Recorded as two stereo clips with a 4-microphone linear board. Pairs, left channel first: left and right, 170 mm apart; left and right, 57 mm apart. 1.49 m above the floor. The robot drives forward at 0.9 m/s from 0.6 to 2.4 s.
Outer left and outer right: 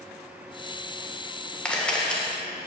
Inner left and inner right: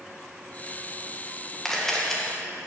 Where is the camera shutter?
5° left (ahead or behind), 1.7 m.